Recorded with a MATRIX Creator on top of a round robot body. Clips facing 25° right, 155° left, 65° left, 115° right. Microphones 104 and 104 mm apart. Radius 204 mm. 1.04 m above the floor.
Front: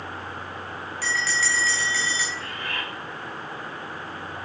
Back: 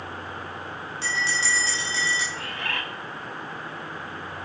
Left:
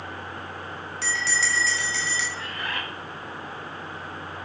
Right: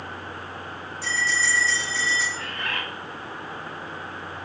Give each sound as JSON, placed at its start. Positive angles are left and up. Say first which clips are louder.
{"t": 1.0, "sound": "a bell", "louder": "front 1 dB, right 2 dB", "azimuth_deg": 90, "distance_m": 0.9}
{"t": 2.3, "sound": "a bird", "louder": "back 1 dB, right 1 dB", "azimuth_deg": 150, "distance_m": 1.2}